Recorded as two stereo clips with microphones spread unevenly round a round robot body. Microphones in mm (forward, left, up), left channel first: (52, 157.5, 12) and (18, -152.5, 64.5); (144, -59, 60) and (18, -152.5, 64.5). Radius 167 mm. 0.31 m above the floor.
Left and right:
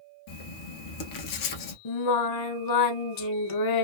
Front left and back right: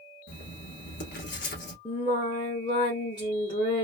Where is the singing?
110° left, 0.8 m.